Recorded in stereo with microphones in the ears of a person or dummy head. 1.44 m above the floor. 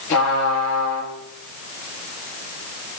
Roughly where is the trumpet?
Left.